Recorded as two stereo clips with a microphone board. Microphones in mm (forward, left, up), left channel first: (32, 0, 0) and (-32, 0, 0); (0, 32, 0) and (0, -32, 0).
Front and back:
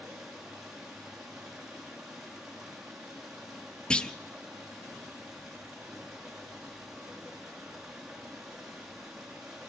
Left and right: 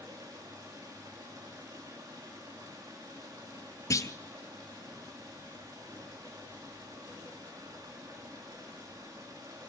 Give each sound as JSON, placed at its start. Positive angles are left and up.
{"t": 0.0, "sound": "running water", "azimuth_deg": -100, "distance_m": 5.0}
{"t": 3.9, "sound": "a clunk", "azimuth_deg": 75, "distance_m": 0.6}